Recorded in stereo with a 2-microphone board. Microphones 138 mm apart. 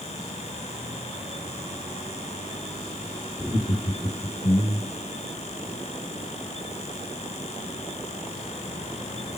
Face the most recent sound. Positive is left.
turn(degrees=30)  # may be behind; listen again after turning